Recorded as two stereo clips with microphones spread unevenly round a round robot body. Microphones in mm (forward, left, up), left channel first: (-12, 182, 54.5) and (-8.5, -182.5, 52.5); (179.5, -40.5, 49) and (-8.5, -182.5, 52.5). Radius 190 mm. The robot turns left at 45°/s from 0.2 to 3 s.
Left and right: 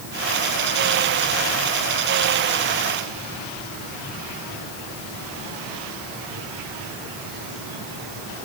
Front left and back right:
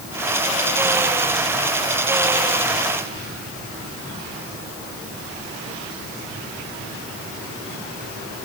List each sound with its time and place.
Only background noise.